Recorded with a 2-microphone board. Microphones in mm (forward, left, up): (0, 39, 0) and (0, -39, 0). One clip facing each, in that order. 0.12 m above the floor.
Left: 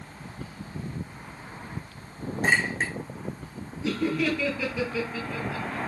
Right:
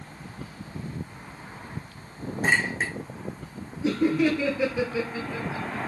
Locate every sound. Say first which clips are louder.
2.4 s a clink: even; 5° right (ahead or behind), 3.5 m
3.8 s laughter: right 4 dB; 25° right (ahead or behind), 2.5 m